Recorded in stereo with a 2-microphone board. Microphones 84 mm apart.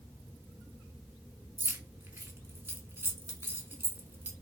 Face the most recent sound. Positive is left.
turn(degrees=-25)  # may be behind; listen again after turning